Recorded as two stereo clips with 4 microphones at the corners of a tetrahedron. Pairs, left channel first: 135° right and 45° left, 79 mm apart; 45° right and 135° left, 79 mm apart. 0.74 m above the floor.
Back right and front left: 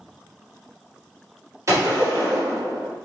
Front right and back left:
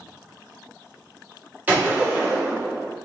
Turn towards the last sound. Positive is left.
turn(degrees=75)